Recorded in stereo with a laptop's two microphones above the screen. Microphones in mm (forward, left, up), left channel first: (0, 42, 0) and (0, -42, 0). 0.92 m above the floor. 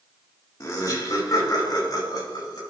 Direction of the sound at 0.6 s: 40° left (ahead or behind).